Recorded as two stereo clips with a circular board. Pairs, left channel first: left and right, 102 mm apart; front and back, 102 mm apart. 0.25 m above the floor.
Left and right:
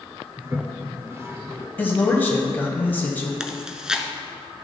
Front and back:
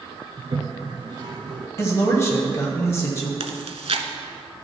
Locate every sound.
0.4 s a toilet flushing: 150° right, 0.6 m
1.8 s a man speaking: 35° left, 1.1 m
3.4 s chewing: 175° right, 0.5 m